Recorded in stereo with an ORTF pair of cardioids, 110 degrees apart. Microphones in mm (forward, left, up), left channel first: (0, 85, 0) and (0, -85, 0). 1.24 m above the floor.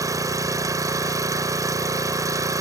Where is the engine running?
20° right.